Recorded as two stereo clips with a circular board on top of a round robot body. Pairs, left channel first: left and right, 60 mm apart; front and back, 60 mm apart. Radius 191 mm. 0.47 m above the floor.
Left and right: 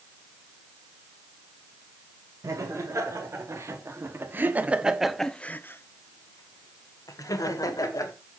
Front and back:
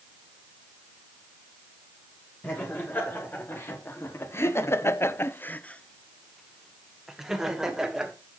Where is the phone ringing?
I don't hear a phone ringing.